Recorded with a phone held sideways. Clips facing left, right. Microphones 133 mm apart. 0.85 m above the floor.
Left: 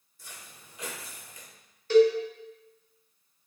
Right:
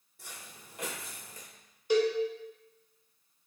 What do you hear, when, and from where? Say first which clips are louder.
0.2 s footsteps: right 1 dB; 65° right (ahead or behind), 2 m; by 1.5 s 35° right (ahead or behind), 1.0 m
1.9 s a cowbell: left 7 dB; 15° right (ahead or behind), 0.8 m